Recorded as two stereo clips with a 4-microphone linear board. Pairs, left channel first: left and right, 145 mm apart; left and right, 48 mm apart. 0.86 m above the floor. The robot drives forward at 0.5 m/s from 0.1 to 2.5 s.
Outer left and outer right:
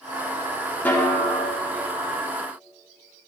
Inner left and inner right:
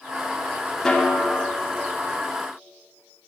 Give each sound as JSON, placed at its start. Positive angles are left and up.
{"t": 0.8, "sound": "a snare drum", "side_deg": 10, "distance_m": 2.0}